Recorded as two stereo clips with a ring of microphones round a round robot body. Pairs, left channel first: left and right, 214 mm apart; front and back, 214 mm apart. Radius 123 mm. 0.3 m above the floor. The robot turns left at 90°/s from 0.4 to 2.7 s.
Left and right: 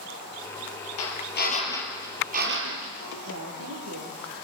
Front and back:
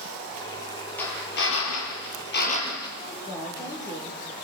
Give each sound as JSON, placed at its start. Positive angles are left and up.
{"t": 1.0, "sound": "a drill", "azimuth_deg": 85, "distance_m": 6.0}
{"t": 3.0, "sound": "a woman speaking", "azimuth_deg": -75, "distance_m": 8.5}